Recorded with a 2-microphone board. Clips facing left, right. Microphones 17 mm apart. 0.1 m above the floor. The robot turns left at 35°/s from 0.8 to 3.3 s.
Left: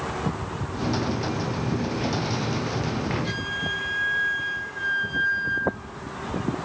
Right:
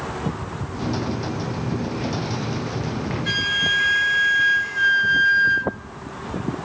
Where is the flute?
50° right (ahead or behind), 0.5 m.